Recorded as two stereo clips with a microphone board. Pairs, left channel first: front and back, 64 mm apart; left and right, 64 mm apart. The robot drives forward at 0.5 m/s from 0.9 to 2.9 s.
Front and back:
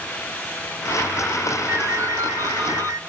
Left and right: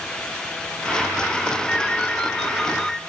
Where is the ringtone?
160° left, 0.7 m; by 3.0 s 170° left, 1.2 m.